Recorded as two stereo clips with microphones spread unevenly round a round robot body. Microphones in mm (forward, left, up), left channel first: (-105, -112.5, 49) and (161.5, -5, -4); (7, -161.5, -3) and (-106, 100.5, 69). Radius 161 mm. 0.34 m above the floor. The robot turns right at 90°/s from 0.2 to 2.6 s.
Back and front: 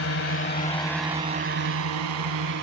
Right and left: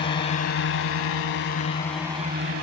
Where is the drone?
125° right; by 2.6 s 70° left.